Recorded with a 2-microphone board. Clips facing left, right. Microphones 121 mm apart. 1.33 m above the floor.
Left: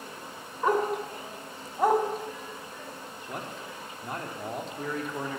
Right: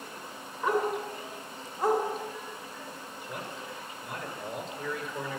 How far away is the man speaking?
About 3 m.